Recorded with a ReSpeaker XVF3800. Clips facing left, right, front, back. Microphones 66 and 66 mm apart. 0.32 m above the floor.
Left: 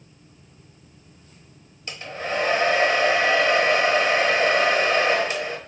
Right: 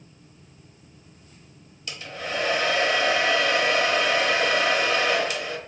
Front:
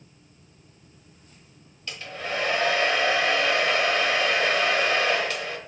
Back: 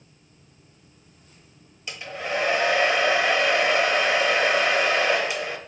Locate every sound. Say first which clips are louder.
1.9 s a hair dryer: left 3 dB, back 2 dB; 115° left, 0.9 m